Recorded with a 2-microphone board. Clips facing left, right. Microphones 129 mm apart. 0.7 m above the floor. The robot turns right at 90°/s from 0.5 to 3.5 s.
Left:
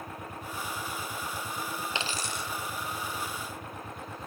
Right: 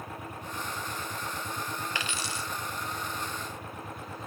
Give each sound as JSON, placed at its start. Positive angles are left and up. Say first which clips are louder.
{"t": 1.9, "sound": "a dropped coin", "louder": "left 1 dB", "azimuth_deg": 20, "distance_m": 1.4}